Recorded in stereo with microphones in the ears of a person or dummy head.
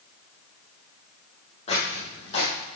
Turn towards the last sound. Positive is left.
turn(degrees=35)  # may be behind; listen again after turning